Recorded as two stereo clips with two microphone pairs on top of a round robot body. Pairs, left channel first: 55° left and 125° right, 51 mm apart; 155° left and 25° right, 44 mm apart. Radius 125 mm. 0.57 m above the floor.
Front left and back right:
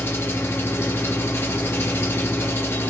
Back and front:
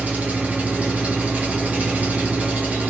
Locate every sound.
0.0 s an engine running: 25° left, 1.3 m